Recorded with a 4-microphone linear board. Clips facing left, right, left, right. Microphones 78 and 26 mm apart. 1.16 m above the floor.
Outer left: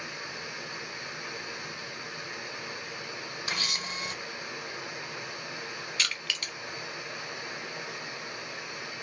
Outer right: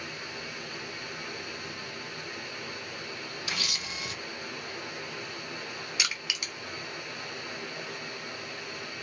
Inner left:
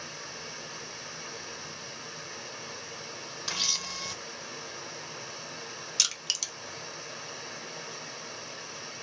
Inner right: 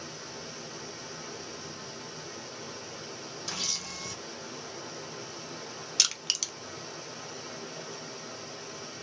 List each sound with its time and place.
0.0 s running water: 15° left (ahead or behind), 1.3 m
3.5 s a camera shutter: 35° left (ahead or behind), 0.8 m
6.0 s crushing: 15° right (ahead or behind), 0.7 m